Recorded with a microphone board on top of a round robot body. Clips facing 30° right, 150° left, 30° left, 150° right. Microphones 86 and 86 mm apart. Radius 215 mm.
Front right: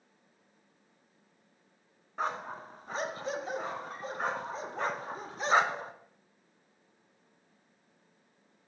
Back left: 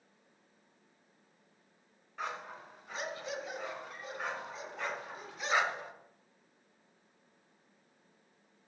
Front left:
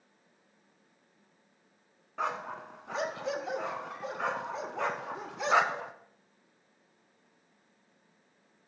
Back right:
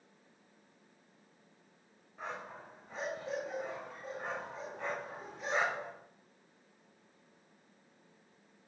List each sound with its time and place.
2.2 s a dog barking: 25° left, 1.6 m